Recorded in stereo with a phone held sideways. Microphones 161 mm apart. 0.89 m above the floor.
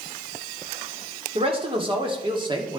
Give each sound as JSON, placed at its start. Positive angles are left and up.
{"t": 1.4, "sound": "a man speaking", "side_deg": -35, "distance_m": 2.5}